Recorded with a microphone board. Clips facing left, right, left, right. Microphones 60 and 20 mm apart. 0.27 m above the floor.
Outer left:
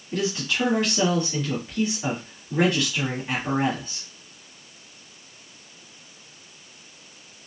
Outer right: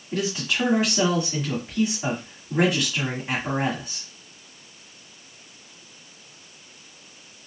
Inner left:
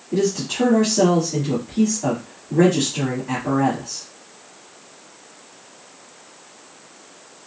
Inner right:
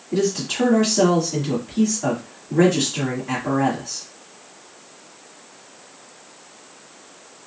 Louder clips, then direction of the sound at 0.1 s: Even, inner left 1 dB; 15° right (ahead or behind).